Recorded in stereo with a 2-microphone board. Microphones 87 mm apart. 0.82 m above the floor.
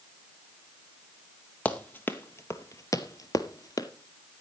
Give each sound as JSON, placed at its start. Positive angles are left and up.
{"t": 1.6, "sound": "running footsteps", "side_deg": 15, "distance_m": 1.3}